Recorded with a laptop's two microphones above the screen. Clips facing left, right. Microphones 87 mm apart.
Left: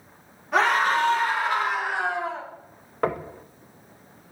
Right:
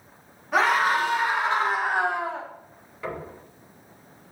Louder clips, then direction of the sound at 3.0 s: Left 7 dB; 65° left (ahead or behind).